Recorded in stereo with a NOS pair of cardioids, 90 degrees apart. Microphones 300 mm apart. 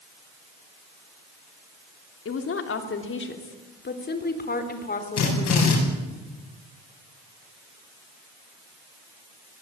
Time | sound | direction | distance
2.2 | a woman speaking | 50° left | 3.5 m
5.2 | a drill | 60° left | 9.5 m